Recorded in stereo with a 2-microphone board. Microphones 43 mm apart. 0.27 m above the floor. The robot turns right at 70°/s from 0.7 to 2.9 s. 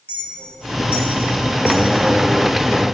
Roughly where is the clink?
Left.